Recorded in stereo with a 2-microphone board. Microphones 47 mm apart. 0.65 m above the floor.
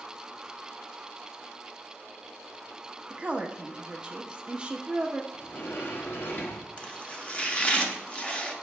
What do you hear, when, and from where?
3.1 s a woman speaking: 20° right (ahead or behind), 0.9 m
5.3 s a sliding door: 50° left (ahead or behind), 1.1 m
6.8 s chopping: 25° left (ahead or behind), 0.9 m